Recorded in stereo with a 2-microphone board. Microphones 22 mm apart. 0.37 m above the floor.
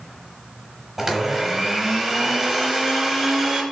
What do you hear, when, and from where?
1.0 s a blender: 20° right (ahead or behind), 1.8 m